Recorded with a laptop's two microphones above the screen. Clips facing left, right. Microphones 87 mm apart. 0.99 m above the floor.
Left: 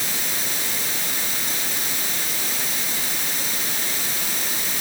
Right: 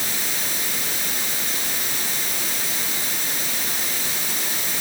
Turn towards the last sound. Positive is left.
No sound to turn to.